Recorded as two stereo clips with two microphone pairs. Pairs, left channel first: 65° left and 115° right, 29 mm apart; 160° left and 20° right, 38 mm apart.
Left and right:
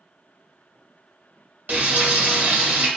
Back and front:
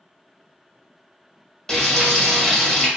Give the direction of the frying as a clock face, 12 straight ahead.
4 o'clock.